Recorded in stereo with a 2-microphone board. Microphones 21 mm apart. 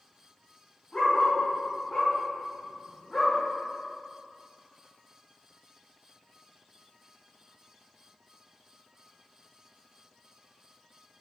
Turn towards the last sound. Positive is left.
turn(degrees=30)  # may be behind; listen again after turning